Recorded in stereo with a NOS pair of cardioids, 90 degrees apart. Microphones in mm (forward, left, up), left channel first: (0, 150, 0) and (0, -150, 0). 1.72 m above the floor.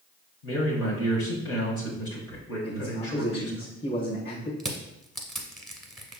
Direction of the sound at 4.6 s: Straight ahead.